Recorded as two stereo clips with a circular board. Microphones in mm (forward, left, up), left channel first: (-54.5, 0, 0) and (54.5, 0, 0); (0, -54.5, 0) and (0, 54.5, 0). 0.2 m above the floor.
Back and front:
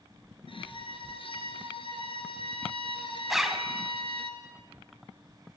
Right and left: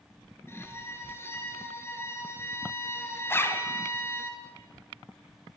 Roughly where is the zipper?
Right.